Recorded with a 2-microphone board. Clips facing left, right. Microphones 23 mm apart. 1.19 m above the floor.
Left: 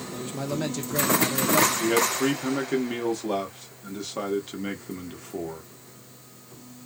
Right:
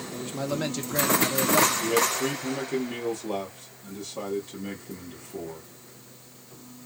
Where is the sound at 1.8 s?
55° left (ahead or behind), 1.2 m.